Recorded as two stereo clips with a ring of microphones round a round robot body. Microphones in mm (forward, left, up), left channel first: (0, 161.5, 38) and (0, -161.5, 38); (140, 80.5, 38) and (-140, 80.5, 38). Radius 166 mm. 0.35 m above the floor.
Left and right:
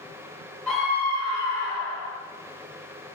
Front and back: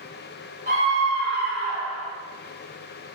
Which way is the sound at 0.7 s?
175° left.